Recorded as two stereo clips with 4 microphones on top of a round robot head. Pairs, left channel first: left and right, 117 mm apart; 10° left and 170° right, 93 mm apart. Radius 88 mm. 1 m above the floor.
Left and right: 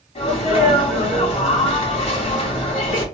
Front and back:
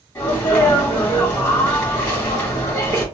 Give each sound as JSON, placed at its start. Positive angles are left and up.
{"t": 0.1, "sound": "a sneeze", "azimuth_deg": 55, "distance_m": 2.5}